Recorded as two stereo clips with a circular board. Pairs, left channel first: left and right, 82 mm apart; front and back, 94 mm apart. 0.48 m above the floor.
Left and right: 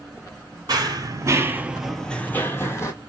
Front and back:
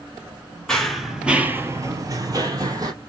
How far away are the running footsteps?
About 0.8 m.